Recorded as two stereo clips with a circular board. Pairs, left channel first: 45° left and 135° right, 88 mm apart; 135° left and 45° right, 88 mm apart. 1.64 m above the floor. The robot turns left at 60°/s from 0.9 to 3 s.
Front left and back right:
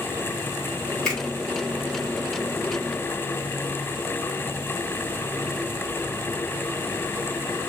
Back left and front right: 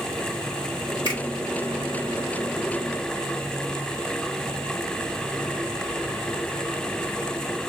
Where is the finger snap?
125° left, 1.6 m; by 1.2 s 115° left, 1.6 m.